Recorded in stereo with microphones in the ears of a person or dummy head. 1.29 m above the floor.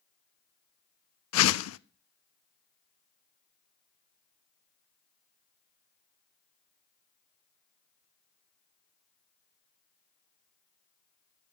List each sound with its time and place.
1.3 s a whoosh: 85° left, 0.6 m